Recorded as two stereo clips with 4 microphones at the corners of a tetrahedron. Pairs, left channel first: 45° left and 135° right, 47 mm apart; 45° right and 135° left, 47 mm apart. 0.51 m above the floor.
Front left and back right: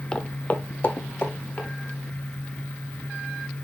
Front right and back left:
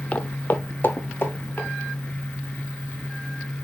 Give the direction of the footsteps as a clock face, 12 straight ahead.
12 o'clock.